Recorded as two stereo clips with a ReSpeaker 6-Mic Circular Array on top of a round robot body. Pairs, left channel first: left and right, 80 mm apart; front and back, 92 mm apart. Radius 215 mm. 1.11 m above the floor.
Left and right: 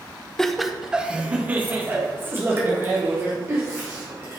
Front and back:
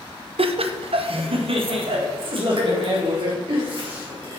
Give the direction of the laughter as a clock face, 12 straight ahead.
6 o'clock.